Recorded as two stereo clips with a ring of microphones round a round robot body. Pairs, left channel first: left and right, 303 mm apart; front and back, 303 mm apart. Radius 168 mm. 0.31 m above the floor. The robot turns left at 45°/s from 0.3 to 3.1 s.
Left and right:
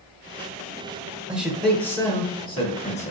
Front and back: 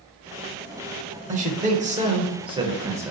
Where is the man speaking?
170° right, 0.9 m; by 3.1 s 110° left, 0.9 m.